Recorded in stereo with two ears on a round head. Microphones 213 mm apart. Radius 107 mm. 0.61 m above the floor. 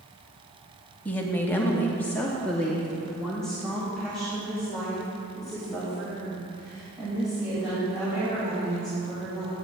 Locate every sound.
1.1 s a woman speaking: 5° left (ahead or behind), 0.9 m; by 9.6 s centre (ahead or behind), 5 m